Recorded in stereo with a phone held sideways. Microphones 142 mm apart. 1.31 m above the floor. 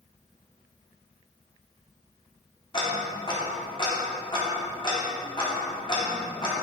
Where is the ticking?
35° left (ahead or behind), 1.9 m.